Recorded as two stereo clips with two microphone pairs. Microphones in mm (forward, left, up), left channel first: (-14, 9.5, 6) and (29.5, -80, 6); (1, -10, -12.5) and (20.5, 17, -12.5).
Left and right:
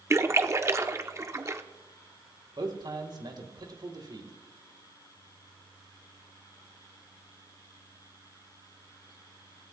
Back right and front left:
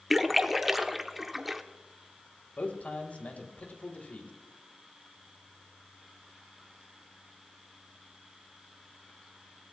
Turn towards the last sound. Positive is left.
turn(degrees=-100)